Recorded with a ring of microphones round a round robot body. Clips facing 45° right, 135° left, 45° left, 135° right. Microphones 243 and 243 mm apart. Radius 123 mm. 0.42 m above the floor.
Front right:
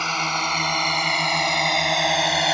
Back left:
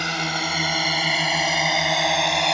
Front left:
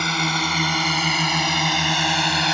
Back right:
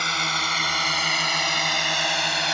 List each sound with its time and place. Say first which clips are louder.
0.0 s a drone: back left 2 dB, front left 8 dB; 60° left; by 2.5 s 40° left